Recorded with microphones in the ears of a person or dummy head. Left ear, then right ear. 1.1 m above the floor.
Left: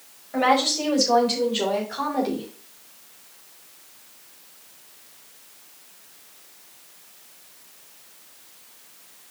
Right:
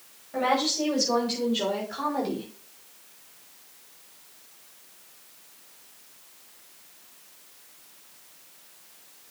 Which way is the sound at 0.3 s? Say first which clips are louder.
Left 5 dB; 25° left (ahead or behind).